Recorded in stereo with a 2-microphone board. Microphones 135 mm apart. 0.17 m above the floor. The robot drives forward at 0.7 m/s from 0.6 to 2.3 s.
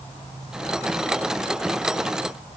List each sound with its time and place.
Only background noise.